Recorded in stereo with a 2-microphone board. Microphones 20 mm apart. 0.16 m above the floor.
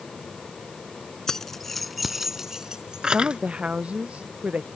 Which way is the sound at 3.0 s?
65° right (ahead or behind).